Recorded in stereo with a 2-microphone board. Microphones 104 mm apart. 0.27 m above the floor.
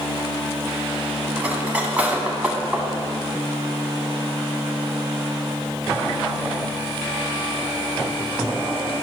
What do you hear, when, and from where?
1.4 s cutlery clinking: 15° right (ahead or behind), 1.2 m